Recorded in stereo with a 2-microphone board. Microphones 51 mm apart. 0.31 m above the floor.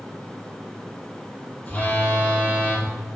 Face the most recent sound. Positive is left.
turn(degrees=30)  # may be behind; listen again after turning